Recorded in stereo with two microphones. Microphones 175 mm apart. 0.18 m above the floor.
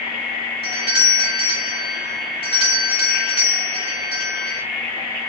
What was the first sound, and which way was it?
A doorbell, 30° left (ahead or behind).